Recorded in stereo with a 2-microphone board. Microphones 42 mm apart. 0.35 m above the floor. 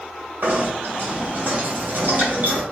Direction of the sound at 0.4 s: 55° right (ahead or behind).